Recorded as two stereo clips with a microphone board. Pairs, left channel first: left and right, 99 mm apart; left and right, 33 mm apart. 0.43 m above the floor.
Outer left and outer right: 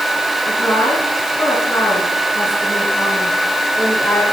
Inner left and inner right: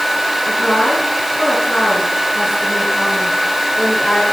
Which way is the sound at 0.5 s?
20° left (ahead or behind).